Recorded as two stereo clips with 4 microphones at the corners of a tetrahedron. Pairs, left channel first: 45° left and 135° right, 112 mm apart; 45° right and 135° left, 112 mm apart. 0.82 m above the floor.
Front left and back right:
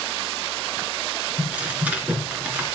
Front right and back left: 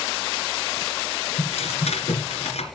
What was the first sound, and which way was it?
Tearing paper, 55° right.